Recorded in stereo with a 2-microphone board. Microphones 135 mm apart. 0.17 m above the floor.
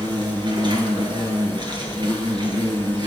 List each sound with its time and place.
0.0 s an insect: 35° right (ahead or behind), 3.5 m